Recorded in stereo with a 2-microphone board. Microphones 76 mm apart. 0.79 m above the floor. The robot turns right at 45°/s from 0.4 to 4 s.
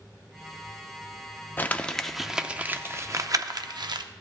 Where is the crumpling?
25° left (ahead or behind), 0.5 m; by 4.0 s 80° right, 0.5 m.